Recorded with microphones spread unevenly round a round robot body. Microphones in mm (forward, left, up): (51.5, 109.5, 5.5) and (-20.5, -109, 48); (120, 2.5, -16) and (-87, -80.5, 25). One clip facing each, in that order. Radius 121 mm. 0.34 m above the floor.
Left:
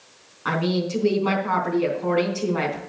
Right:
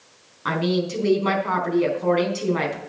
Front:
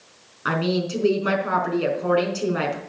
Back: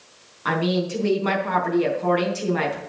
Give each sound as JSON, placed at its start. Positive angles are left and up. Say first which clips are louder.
{"t": 0.5, "sound": "a woman speaking", "louder": "right 1 dB, back 1 dB", "azimuth_deg": -50, "distance_m": 4.0}